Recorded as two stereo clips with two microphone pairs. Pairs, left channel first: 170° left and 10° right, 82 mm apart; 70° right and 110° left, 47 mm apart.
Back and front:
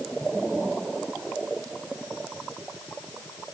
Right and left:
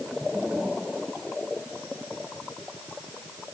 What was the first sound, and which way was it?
Only background noise.